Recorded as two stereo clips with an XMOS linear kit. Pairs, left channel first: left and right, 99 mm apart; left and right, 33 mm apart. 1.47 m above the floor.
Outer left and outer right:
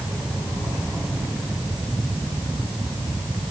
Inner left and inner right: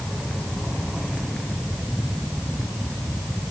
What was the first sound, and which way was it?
Only background noise.